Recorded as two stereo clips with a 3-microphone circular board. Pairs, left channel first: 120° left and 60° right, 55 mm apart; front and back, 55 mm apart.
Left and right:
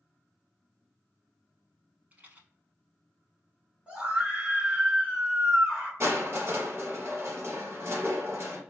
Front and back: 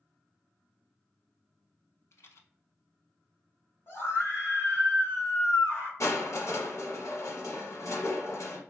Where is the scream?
5° right, 1.6 m.